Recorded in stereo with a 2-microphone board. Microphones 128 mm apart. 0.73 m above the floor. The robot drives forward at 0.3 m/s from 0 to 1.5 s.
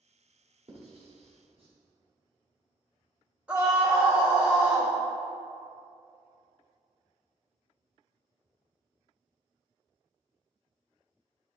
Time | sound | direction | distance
0.7 | writing | 55° right (ahead or behind) | 1.5 m
3.5 | a scream | 10° right (ahead or behind) | 2.0 m